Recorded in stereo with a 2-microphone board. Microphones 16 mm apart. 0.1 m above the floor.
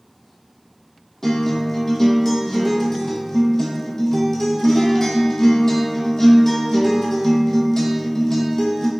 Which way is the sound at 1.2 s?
30° left (ahead or behind).